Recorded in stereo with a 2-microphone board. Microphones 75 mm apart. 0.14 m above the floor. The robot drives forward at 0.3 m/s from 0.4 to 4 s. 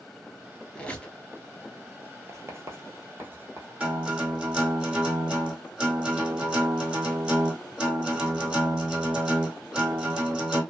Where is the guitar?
15° right (ahead or behind), 1.8 m.